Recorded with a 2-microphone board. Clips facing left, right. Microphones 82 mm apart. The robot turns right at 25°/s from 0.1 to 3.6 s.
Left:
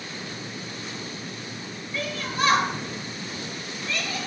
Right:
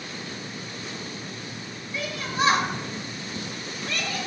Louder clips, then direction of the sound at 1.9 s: Right 1 dB; 10° right (ahead or behind).